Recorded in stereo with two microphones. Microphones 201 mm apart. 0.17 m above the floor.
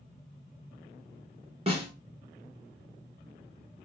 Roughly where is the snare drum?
Right.